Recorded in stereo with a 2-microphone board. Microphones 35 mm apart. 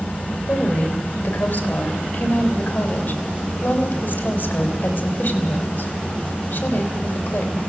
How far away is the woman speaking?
About 4.5 m.